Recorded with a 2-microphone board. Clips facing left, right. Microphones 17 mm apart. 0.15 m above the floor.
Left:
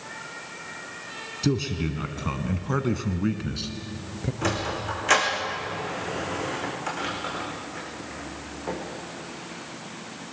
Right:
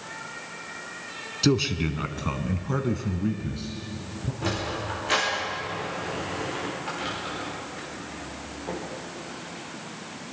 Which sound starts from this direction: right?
A man speaking, at 1.4 s.